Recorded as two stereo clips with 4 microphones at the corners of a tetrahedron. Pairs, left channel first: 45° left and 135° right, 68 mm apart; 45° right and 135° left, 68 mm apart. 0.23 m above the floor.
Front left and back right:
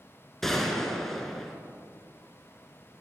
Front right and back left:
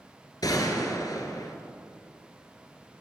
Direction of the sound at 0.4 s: 40° right.